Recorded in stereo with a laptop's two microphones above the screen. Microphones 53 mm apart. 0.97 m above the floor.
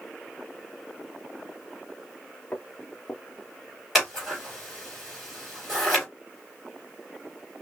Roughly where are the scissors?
Centre.